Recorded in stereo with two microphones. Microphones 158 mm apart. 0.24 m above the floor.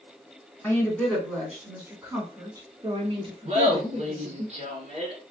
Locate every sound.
0.6 s a woman speaking: 15° left (ahead or behind), 1.7 m; by 4.5 s 50° right (ahead or behind), 2.5 m
3.5 s laughter: 50° right (ahead or behind), 1.6 m